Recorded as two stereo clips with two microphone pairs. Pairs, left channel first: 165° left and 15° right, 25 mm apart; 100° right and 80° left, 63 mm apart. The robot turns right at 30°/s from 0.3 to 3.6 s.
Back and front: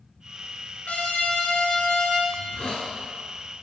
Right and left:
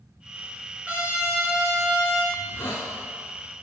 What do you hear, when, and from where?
0.9 s a trumpet: 150° left, 4 m; by 2.2 s 170° right, 4 m
2.3 s a hiss: 165° right, 2.5 m; by 2.9 s 150° right, 2.5 m